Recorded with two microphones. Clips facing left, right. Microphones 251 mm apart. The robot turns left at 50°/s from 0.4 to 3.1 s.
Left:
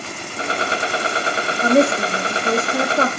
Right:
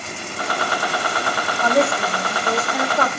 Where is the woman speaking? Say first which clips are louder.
Left 4 dB; 125° left, 0.7 m; by 3.1 s 50° left, 0.7 m.